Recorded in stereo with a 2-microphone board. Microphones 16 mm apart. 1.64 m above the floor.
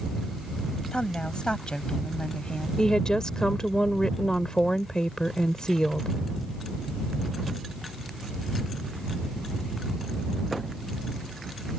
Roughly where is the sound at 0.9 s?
Left.